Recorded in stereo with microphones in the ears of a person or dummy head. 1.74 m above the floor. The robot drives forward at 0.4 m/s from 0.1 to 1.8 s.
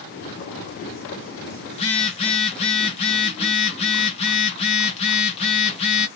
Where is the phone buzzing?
35° left (ahead or behind), 0.9 m; by 6.1 s 40° left (ahead or behind), 0.8 m.